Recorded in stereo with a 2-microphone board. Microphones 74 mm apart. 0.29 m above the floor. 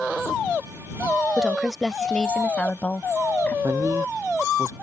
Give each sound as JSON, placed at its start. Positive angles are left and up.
{"t": 1.4, "sound": "a woman speaking", "side_deg": -10}
{"t": 3.6, "sound": "a man speaking", "side_deg": -45}